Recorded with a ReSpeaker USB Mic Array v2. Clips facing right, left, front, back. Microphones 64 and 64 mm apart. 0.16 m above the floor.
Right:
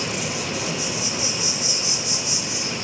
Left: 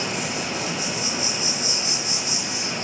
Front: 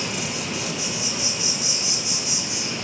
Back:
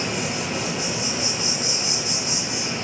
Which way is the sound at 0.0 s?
140° left.